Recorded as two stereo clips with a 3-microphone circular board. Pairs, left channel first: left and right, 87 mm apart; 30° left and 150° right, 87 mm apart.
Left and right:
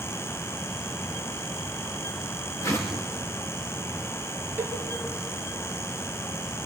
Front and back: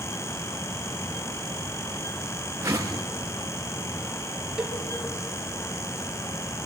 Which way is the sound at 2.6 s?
150° left.